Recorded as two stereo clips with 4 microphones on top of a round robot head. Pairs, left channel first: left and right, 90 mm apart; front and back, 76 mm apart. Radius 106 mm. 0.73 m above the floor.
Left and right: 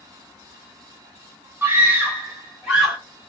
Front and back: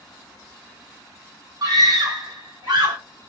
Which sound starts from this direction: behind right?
A scream, at 1.6 s.